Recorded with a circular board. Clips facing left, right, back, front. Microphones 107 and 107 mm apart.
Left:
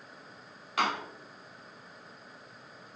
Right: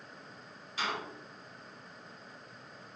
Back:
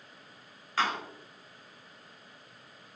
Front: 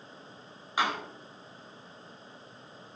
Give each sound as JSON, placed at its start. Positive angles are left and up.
{"t": 0.8, "sound": "a door slam", "azimuth_deg": 75, "distance_m": 5.0}